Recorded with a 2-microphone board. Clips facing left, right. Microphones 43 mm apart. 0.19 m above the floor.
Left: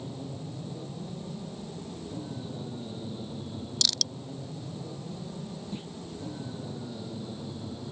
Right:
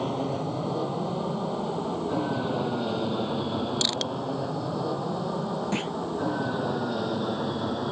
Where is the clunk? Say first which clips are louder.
Right 11 dB; 80° right.